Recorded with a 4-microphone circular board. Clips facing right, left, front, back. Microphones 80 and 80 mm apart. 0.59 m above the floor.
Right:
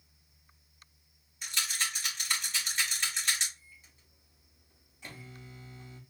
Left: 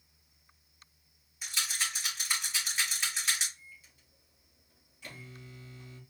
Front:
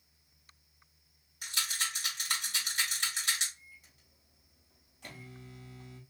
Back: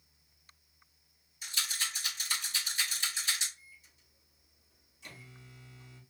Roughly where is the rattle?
Ahead.